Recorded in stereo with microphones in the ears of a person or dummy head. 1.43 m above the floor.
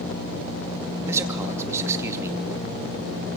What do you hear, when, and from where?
1.1 s a man speaking: 10° right (ahead or behind), 2 m